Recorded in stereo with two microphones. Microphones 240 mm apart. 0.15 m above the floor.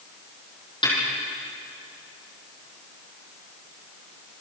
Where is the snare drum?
20° left (ahead or behind), 6.5 m.